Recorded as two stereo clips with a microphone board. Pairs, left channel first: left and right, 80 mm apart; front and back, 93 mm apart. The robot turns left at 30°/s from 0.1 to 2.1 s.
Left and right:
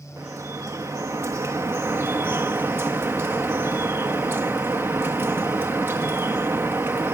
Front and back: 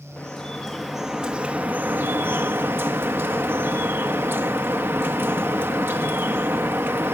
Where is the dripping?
70° right, 1.1 m; by 7.2 s 130° right, 1.1 m.